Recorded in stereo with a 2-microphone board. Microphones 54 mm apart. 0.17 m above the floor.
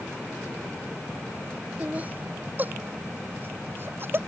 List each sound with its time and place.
1.8 s laughter: 25° right (ahead or behind); by 4.2 s 45° right (ahead or behind)